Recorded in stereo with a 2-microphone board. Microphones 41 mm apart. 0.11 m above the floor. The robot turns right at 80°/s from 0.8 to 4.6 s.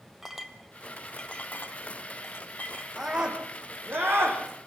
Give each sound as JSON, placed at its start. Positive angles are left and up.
{"t": 0.2, "sound": "a clink", "side_deg": -10, "distance_m": 1.7}
{"t": 3.0, "sound": "a scream", "azimuth_deg": 175, "distance_m": 7.0}